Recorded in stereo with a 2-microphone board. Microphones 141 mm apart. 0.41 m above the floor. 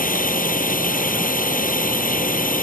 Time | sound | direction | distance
0.0 | a drone | 80° left | ?